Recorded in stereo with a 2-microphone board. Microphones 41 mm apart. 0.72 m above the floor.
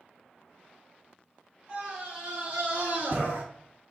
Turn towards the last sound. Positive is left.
turn(degrees=-45)  # may be behind; listen again after turning